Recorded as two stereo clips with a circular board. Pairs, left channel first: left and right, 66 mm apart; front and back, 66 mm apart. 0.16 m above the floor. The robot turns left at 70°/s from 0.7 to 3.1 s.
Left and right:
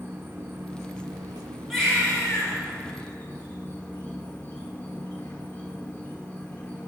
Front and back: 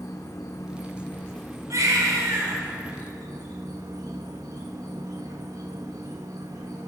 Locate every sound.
0.0 s an insect: 30° right, 0.9 m; by 6.9 s 165° left, 0.9 m
1.7 s a baby crying: straight behind, 1.8 m; by 2.6 s 120° left, 1.8 m